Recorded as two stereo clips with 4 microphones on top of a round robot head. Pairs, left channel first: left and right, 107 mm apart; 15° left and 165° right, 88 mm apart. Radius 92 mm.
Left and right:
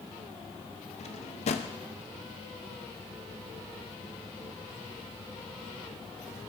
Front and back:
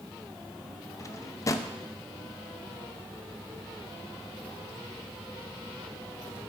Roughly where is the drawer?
Left.